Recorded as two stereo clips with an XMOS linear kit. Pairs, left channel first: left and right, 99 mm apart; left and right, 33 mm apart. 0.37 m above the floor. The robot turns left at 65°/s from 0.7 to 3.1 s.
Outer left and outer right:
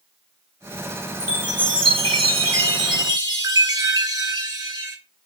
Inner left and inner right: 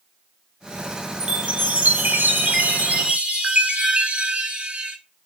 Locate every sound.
1.2 s a chime: 15° right, 0.7 m; by 5.0 s 135° right, 0.7 m